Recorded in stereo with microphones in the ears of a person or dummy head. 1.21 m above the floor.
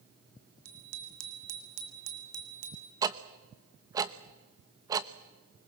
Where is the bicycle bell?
85° right, 4 m; by 2.9 s 35° right (ahead or behind), 2.5 m.